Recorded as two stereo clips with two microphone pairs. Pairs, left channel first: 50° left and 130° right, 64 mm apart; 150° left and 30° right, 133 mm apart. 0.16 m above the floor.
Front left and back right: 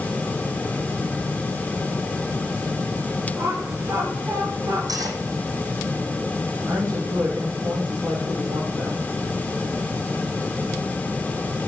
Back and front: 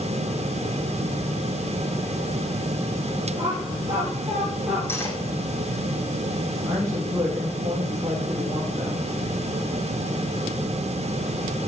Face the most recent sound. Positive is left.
turn(degrees=-95)